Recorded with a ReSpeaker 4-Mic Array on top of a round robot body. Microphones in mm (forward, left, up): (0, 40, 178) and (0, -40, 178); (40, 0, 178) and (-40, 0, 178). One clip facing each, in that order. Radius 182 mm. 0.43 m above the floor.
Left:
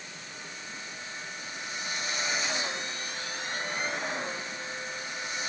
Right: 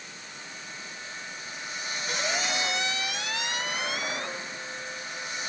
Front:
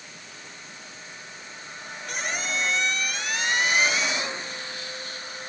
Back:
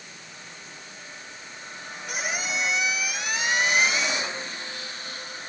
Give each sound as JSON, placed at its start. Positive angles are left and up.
{"t": 2.1, "sound": "a squeak", "azimuth_deg": -95}